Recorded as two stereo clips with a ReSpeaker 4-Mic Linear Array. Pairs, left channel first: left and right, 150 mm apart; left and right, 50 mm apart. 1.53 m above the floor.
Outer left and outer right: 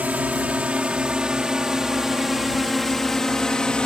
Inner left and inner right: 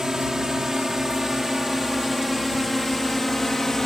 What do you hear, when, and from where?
0.0 s a drone: 10° right (ahead or behind); by 3.9 s 5° left (ahead or behind)